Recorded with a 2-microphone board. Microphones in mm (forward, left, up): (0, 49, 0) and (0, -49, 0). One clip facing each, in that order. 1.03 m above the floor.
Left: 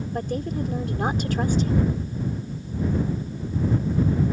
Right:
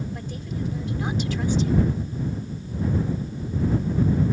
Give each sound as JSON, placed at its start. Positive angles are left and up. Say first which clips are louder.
{"t": 0.1, "sound": "a woman speaking", "louder": "left 6 dB", "side_deg": 55}